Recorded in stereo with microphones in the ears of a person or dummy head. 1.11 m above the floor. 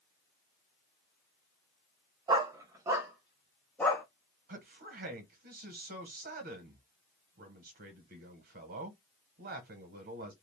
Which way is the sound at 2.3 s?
25° right (ahead or behind).